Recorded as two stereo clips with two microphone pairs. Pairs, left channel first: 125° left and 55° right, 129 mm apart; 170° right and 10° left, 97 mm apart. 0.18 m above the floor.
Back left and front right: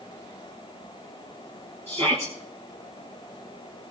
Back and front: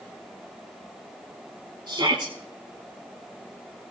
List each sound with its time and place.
1.9 s a shout: 25° right, 4 m